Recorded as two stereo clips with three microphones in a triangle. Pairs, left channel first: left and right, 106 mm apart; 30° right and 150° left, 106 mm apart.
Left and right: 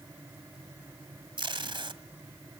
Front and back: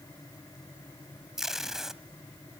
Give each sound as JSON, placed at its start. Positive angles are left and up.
{"t": 1.4, "sound": "tape being pulled", "azimuth_deg": -125, "distance_m": 1.3}